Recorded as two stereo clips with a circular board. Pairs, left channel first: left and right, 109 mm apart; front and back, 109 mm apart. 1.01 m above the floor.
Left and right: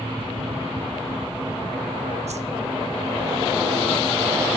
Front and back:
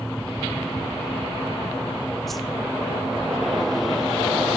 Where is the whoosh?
90° right, 0.7 m.